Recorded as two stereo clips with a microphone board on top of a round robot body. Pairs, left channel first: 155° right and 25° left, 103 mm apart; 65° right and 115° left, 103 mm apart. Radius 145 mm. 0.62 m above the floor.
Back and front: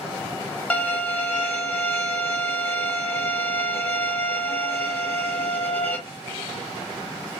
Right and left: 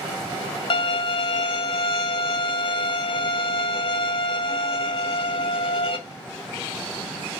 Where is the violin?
80° right, 1.2 m.